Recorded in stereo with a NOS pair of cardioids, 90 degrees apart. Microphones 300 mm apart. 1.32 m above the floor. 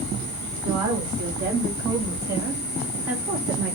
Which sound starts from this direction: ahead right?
A woman speaking, at 0.6 s.